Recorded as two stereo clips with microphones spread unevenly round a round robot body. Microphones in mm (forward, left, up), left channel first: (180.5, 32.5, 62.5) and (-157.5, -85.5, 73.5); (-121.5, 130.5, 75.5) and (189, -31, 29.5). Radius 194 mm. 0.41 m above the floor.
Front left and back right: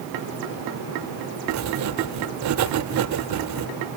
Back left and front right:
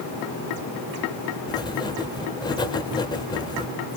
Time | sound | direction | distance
1.5 | writing | 125° right | 1.2 m